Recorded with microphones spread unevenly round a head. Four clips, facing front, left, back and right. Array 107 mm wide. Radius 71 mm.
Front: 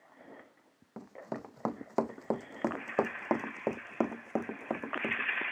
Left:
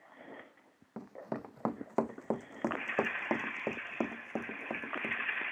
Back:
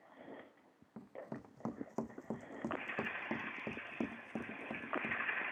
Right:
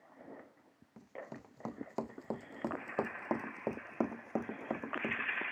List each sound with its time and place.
1.0 s running footsteps: 45° left; by 5.4 s 15° right